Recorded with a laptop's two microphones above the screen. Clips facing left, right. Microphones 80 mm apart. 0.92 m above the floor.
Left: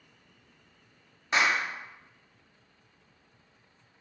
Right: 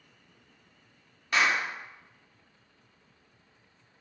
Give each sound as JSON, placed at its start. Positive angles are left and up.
{"t": 1.3, "sound": "a clap", "side_deg": 25, "distance_m": 0.6}